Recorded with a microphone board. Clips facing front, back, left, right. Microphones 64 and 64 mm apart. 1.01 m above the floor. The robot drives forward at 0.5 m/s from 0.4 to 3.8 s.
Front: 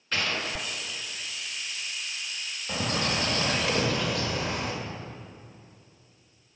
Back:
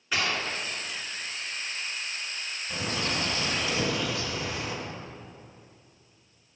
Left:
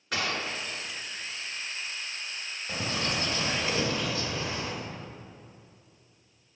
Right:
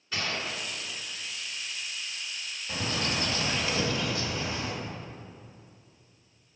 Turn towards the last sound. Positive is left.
turn(degrees=30)